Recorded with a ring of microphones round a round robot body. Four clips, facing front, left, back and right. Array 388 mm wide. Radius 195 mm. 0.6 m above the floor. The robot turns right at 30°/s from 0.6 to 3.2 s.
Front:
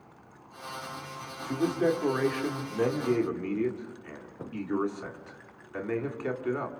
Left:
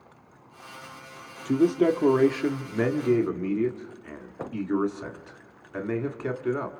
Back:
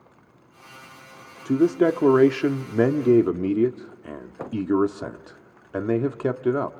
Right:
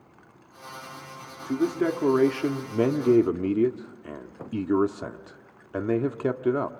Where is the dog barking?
I don't hear a dog barking.